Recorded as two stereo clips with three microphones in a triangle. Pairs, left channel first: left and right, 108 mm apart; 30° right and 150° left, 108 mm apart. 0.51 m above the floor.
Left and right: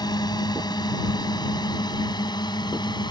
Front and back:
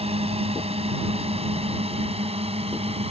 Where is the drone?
140° left; by 3.1 s 135° left.